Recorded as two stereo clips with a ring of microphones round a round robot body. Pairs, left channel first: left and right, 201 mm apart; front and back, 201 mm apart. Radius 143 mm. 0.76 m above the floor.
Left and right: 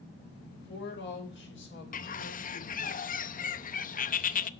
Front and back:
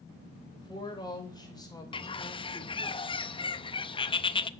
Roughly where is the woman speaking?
Left.